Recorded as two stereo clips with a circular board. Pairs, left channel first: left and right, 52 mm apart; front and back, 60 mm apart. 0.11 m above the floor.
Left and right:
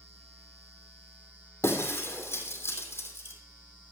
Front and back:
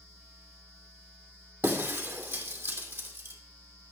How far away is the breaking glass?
About 2.5 m.